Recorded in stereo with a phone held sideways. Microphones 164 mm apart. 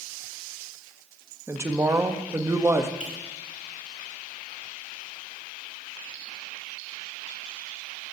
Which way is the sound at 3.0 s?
65° right (ahead or behind).